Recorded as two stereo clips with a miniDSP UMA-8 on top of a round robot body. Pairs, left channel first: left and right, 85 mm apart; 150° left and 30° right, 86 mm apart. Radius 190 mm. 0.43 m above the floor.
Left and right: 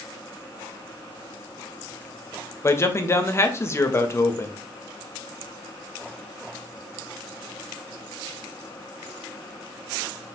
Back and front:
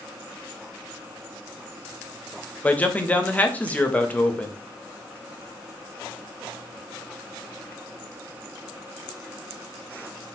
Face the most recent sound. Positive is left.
turn(degrees=95)